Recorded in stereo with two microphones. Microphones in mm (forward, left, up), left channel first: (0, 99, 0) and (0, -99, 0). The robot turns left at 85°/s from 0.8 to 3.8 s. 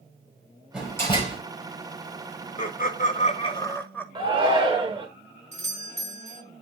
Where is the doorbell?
35° right (ahead or behind), 1.8 m.